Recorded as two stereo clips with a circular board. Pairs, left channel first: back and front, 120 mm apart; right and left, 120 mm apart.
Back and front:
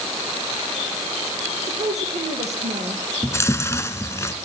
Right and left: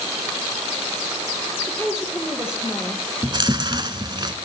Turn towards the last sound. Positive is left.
turn(degrees=120)